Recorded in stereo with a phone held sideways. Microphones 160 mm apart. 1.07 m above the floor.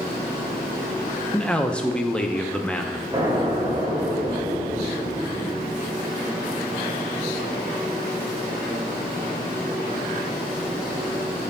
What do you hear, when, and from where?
1.3 s a man speaking: 5° left (ahead or behind), 0.7 m
3.1 s an explosion: 25° right (ahead or behind), 3.5 m